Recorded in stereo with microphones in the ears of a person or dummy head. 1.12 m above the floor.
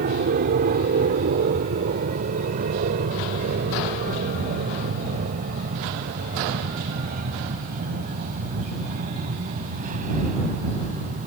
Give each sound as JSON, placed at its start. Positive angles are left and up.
{"t": 0.0, "sound": "an aircraft", "side_deg": -45}